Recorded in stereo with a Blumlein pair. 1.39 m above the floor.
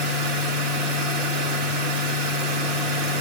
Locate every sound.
0.0 s a machine running: 35° right, 1.9 m